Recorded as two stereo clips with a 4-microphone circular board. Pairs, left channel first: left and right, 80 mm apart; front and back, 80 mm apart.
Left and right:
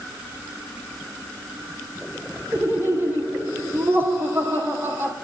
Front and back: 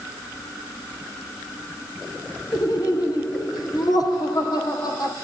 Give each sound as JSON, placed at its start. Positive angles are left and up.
{"t": 2.5, "sound": "laughter", "azimuth_deg": -30, "distance_m": 5.0}